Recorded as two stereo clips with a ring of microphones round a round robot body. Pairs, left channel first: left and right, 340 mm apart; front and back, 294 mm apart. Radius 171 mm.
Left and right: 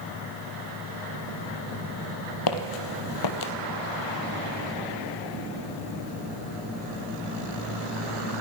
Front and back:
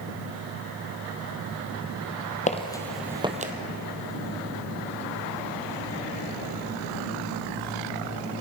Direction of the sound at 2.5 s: 65° left.